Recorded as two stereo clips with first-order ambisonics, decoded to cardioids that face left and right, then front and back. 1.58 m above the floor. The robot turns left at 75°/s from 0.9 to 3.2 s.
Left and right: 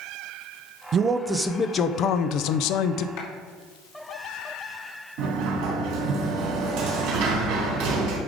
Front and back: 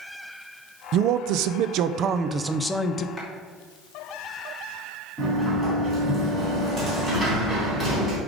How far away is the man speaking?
About 0.6 m.